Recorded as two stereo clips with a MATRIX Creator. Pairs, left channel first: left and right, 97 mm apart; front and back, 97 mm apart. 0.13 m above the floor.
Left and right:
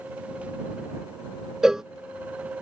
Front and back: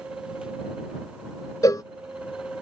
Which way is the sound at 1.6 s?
10° right.